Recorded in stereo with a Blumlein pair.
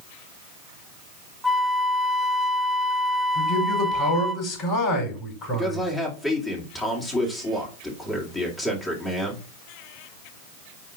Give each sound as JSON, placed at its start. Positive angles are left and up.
{"t": 1.4, "sound": "a flute", "azimuth_deg": 0, "distance_m": 1.0}
{"t": 3.4, "sound": "a man speaking", "azimuth_deg": 30, "distance_m": 5.0}
{"t": 5.5, "sound": "a man speaking", "azimuth_deg": 10, "distance_m": 2.5}